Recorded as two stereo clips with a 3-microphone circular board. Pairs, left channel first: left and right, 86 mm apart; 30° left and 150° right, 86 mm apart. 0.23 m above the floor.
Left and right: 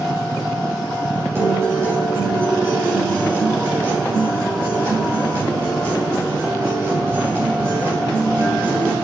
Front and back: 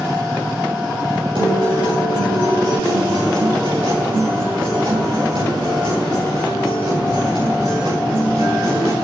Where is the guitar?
155° right, 9 m.